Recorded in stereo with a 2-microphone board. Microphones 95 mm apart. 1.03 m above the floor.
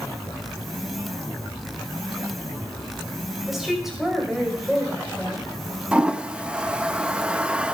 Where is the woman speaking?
5° right (ahead or behind), 5.5 m.